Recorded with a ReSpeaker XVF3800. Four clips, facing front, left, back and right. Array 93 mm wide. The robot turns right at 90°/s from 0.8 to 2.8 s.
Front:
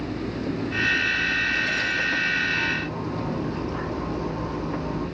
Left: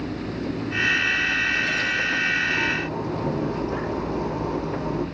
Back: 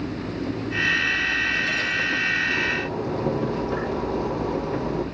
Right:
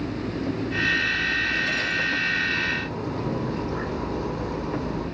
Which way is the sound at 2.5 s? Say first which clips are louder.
Left 2 dB, back 1 dB; 125° left.